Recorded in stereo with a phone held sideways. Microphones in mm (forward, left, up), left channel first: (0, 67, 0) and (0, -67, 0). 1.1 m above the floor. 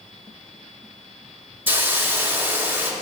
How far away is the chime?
I don't hear a chime.